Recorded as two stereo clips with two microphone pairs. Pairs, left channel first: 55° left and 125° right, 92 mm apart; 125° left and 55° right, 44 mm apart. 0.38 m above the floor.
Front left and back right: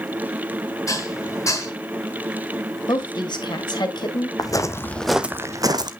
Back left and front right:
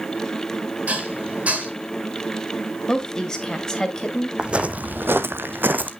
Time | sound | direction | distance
0.9 | dishes clattering | 5° left | 2 m
2.9 | a woman speaking | 55° left | 2 m
4.4 | footsteps | 15° left | 1.0 m